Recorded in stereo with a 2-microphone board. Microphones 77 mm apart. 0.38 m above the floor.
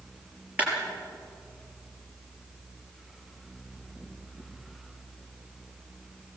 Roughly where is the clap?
Right.